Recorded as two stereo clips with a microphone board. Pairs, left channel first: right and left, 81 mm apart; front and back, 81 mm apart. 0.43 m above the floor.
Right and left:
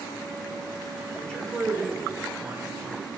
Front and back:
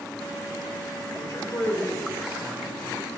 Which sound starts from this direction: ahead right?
A man speaking, at 1.1 s.